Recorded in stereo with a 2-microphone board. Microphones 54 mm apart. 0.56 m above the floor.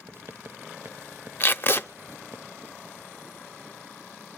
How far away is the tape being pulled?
About 0.7 m.